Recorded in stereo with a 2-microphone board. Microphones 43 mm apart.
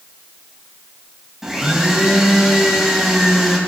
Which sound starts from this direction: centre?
A blender, at 1.4 s.